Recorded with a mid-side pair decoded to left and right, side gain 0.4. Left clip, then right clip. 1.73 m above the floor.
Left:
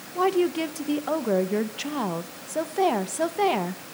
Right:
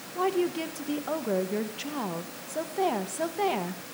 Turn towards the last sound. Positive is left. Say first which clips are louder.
# left 5 dB
turn(degrees=35)